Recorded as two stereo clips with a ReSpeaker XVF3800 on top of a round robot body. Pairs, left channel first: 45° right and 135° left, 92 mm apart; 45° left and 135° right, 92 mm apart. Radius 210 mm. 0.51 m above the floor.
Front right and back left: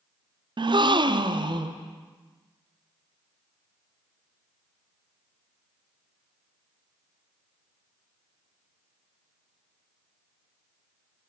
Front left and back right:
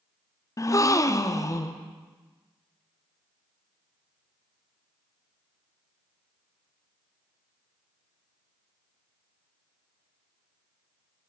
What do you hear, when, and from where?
0.6 s a gasp: 100° left, 0.5 m